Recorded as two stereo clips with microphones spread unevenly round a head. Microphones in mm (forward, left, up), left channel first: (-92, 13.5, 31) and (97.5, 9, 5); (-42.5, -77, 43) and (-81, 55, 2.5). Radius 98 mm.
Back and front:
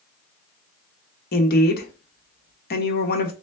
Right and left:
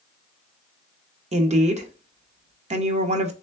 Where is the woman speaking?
135° left, 1.0 m.